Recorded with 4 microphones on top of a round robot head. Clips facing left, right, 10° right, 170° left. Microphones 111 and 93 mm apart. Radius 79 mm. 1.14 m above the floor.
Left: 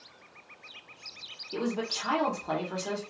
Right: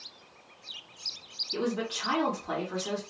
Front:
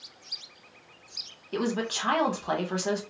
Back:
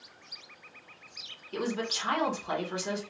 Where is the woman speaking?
30° left, 1.0 m.